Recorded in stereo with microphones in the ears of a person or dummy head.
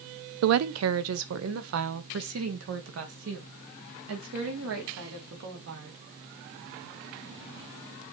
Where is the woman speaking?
80° right, 0.5 m; by 6.0 s 70° right (ahead or behind), 3.5 m.